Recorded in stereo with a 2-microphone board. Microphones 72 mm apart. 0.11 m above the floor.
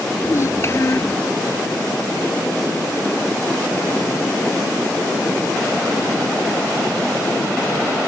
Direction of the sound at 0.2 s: 40° left (ahead or behind).